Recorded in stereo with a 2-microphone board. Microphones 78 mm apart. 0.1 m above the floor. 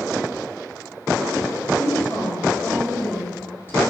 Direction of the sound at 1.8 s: 30° left (ahead or behind).